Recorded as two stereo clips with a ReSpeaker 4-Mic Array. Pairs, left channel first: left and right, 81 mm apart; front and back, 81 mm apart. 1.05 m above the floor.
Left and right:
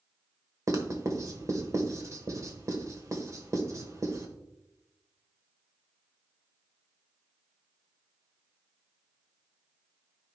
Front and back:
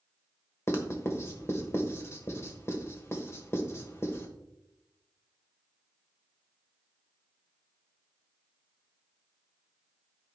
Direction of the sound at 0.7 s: 50° right.